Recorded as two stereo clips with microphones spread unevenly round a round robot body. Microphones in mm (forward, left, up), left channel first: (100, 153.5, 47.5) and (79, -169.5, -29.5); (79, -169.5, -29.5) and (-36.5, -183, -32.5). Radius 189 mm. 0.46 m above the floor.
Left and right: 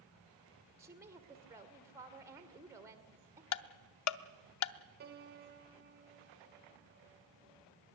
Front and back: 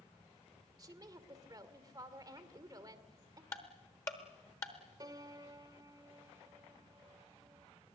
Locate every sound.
0.8 s a woman speaking: 150° right, 1.6 m
3.5 s ticking: 65° left, 0.7 m
5.0 s a piano: 130° right, 1.2 m